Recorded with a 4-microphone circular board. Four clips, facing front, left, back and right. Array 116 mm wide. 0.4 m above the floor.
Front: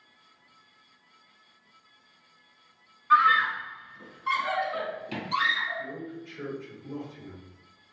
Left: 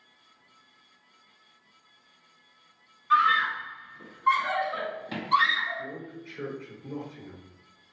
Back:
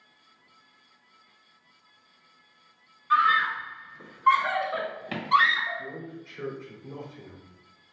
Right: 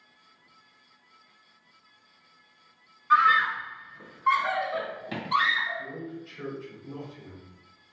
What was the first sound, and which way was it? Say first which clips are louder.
A scream: right 2 dB, front 1 dB; 55° right.